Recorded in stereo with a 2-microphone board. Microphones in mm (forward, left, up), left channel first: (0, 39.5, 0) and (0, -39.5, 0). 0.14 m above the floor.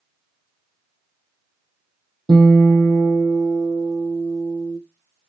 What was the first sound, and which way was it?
A guitar, 70° right (ahead or behind).